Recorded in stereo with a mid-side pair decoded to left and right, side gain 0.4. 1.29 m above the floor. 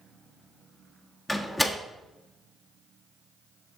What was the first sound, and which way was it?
A door slam, 25° left.